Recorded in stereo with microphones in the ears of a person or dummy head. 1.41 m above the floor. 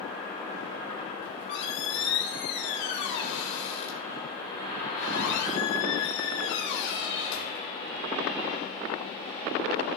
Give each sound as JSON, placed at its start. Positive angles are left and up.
{"t": 1.2, "sound": "a squeak", "side_deg": 65, "distance_m": 2.0}